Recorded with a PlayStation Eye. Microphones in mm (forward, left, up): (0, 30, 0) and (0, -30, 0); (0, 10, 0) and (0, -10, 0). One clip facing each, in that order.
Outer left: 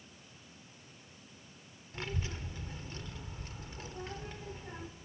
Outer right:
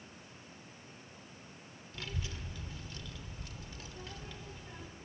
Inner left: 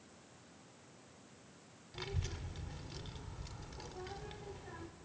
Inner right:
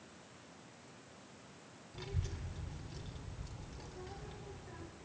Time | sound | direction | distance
1.9 | a child speaking | 35° left (ahead or behind) | 1.8 m